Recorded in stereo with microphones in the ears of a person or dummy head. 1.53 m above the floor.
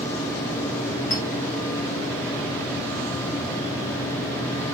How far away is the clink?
About 1.4 m.